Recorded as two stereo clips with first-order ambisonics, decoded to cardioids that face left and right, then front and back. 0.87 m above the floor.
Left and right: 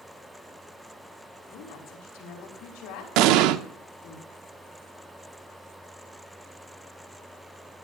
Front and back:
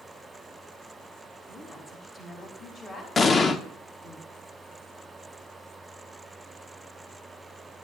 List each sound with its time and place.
1.5 s a woman speaking: 75° left, 5 m
3.2 s an explosion: 70° right, 0.7 m